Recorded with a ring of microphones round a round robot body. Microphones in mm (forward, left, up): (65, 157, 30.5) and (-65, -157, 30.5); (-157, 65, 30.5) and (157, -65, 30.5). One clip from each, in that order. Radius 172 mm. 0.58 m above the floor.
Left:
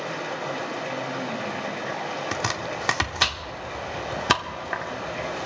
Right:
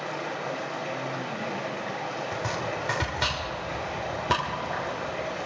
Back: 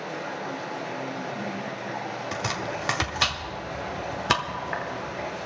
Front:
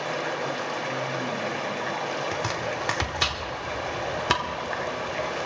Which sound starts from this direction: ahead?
Running water, at 0.0 s.